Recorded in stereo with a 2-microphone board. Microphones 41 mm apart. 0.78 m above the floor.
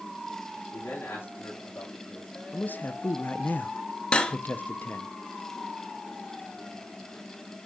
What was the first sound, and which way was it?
A man speaking, 55° left (ahead or behind).